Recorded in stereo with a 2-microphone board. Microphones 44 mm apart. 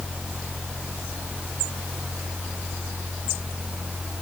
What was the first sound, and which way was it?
Only background noise.